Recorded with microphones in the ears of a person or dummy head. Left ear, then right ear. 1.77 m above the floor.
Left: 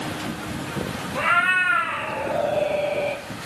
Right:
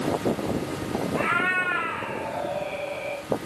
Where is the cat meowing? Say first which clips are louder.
Left 5 dB; 20° left (ahead or behind), 1.7 m; by 3.2 s 45° left (ahead or behind), 2 m.